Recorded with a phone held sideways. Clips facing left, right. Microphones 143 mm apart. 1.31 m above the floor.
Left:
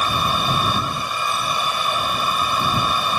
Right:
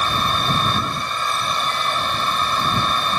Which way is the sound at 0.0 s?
5° left (ahead or behind).